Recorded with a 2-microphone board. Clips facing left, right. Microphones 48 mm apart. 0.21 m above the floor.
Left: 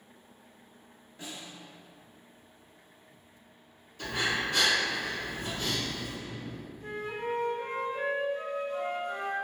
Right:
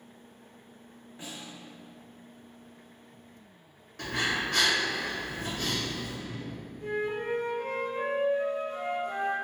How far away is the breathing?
About 1.9 m.